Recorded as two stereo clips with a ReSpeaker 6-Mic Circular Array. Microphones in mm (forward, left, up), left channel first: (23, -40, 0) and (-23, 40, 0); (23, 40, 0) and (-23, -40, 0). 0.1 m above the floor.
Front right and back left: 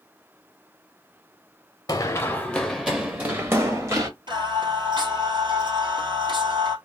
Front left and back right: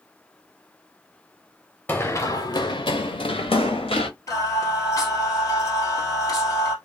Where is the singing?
105° left, 1.7 m.